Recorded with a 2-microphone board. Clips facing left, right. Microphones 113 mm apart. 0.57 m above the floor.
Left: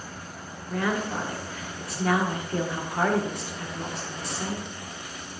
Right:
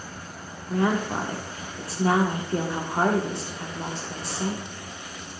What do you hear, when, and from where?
0.7 s a woman speaking: 30° right (ahead or behind), 1.3 m